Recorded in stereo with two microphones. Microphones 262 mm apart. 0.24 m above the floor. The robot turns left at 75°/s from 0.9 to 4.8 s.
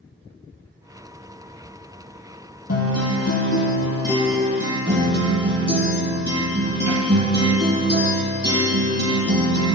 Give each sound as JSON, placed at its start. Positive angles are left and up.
{"t": 2.7, "sound": "a guitar", "azimuth_deg": 115, "distance_m": 1.4}